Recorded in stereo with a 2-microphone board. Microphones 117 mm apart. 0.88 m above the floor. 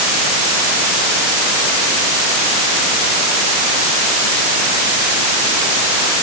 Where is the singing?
I don't hear singing.